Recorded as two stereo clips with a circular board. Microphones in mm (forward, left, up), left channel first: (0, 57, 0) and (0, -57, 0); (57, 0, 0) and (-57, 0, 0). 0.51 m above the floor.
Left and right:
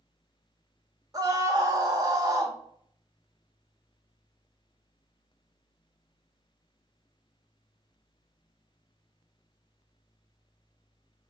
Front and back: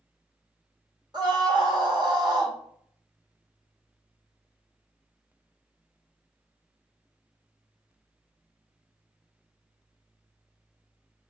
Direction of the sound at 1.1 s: 140° right.